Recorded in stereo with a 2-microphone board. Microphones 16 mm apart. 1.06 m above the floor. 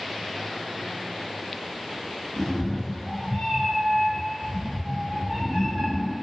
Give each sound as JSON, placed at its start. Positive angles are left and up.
{"t": 2.4, "sound": "a cat meowing", "side_deg": 15, "distance_m": 1.2}